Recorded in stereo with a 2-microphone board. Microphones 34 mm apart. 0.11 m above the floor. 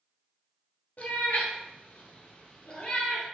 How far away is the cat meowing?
About 0.9 m.